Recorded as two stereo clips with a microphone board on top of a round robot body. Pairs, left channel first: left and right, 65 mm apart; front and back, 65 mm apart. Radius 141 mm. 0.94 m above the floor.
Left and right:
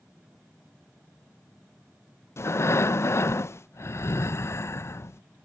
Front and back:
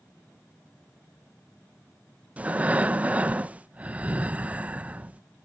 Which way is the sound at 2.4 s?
120° left.